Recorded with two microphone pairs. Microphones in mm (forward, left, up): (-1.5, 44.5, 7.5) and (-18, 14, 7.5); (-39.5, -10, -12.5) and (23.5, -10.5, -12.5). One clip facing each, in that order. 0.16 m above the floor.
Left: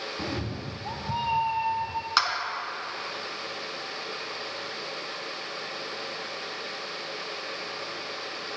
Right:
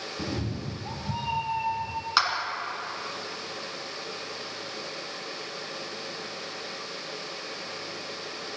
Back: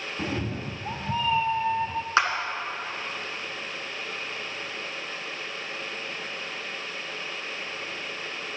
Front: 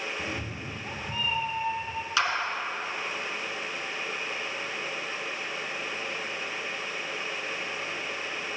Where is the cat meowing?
130° left, 0.8 m.